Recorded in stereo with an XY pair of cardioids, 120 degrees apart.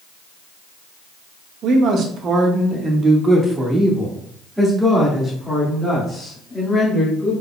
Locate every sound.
1.6 s a man speaking: 60° right, 1.3 m; by 7.3 s 10° left, 3 m